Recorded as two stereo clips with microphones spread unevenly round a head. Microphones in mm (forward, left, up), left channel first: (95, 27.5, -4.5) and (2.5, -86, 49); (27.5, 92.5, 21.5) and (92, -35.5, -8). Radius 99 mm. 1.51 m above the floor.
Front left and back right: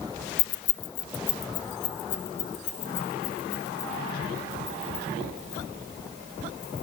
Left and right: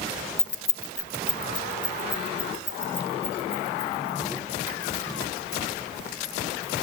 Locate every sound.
0.4 s keys jangling: 50° left, 0.6 m; by 6.8 s 65° left, 10 m